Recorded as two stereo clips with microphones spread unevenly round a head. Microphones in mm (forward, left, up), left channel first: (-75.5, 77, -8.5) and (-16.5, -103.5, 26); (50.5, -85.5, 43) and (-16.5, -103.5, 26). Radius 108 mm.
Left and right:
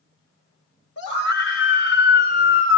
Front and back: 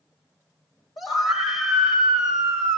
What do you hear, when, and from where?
1.0 s a scream: 65° left, 4 m; by 2.8 s 80° left, 3 m